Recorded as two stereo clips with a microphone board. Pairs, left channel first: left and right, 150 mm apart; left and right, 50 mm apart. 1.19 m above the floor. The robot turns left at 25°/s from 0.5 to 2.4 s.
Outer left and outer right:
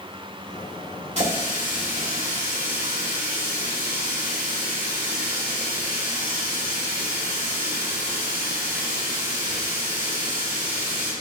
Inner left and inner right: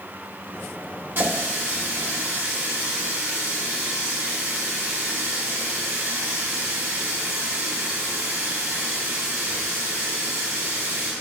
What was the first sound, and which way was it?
A running tap, 50° right.